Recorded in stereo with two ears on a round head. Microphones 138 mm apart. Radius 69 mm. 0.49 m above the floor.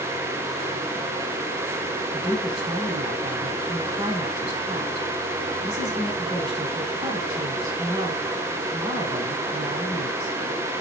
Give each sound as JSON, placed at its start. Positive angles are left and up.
{"t": 2.1, "sound": "a woman speaking", "side_deg": -30, "distance_m": 3.5}